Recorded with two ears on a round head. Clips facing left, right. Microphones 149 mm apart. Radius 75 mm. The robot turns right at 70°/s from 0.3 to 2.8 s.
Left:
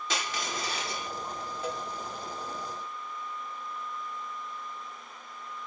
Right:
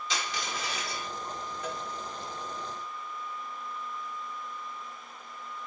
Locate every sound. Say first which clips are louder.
0.1 s crushing: left 1 dB; 105° left, 1.2 m; by 1.1 s 160° left, 1.2 m
1.6 s a cowbell: left 3 dB; 25° left (ahead or behind), 1.3 m; by 1.9 s 15° left (ahead or behind), 1.3 m